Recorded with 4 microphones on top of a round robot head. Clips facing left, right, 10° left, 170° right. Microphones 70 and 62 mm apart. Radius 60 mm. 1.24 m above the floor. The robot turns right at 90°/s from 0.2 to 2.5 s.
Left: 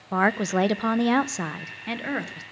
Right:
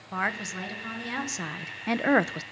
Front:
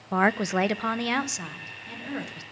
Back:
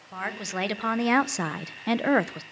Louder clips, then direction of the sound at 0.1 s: Left 8 dB, front 9 dB; 40° left.